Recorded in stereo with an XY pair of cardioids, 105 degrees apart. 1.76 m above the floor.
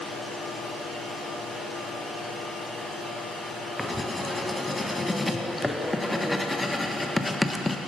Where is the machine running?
50° left, 3 m.